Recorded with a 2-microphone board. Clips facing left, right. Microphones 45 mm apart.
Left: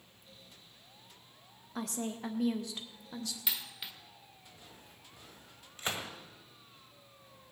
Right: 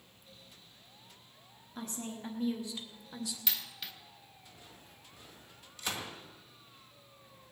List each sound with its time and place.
1.8 s a woman speaking: 85° left, 1.7 m; by 3.4 s 10° left (ahead or behind), 1.2 m
3.5 s a dropped coin: 10° left (ahead or behind), 1.3 m
5.8 s a gunshot: 30° left (ahead or behind), 1.7 m